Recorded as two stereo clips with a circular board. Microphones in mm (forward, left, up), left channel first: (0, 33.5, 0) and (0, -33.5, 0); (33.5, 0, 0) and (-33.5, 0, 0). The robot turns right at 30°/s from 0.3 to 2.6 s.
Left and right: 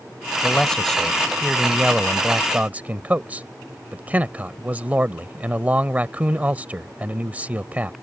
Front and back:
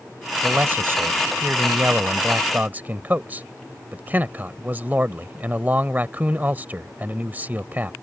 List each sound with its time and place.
0.4 s a man speaking: 155° left; by 7.9 s 140° right